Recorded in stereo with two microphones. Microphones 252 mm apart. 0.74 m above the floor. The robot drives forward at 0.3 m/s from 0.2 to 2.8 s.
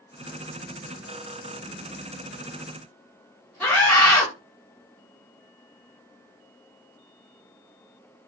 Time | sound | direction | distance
3.6 | a scream | 5° left (ahead or behind) | 1.0 m